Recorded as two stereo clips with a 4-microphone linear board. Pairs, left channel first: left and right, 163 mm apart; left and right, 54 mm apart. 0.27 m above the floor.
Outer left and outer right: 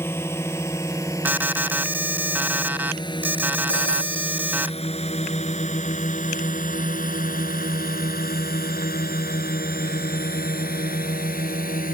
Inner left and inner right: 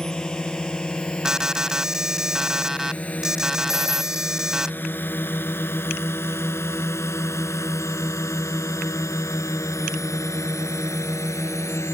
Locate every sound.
0.0 s a drone: 15° left (ahead or behind); by 11.9 s 60° left (ahead or behind)
1.2 s an alarm: 10° right (ahead or behind)
3.7 s a phone ringing: 85° left